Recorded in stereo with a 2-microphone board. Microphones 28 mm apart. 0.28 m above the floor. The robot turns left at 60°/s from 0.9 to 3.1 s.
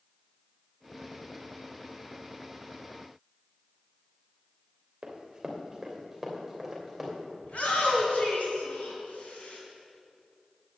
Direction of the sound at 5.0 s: 25° right (ahead or behind).